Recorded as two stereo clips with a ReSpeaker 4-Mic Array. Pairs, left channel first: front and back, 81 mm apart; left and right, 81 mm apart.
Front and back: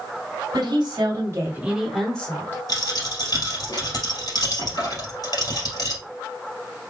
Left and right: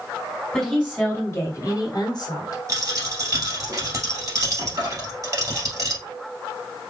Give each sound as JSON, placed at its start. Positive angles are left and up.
{"t": 0.5, "sound": "a woman speaking", "azimuth_deg": 170, "distance_m": 1.7}
{"t": 2.7, "sound": "a dropped coin", "azimuth_deg": -40, "distance_m": 2.5}